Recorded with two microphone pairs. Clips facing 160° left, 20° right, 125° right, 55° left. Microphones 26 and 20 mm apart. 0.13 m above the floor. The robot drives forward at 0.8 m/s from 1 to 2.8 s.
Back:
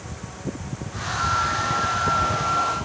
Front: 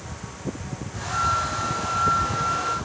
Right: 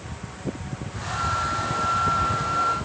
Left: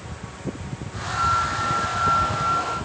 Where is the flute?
40° right, 4 m; by 2.8 s 60° right, 3 m.